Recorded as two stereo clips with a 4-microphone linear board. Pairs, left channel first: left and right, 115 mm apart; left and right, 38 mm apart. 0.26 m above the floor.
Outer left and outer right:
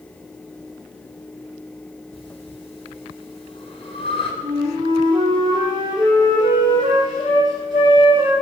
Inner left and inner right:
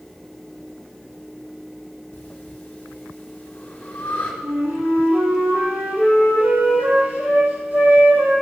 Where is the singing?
No singing in this recording.